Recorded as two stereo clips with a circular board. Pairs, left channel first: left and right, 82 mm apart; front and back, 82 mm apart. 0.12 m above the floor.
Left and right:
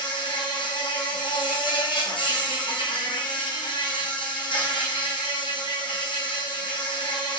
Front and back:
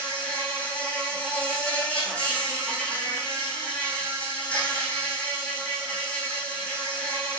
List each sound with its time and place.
0.0 s an insect: 75° left, 4.5 m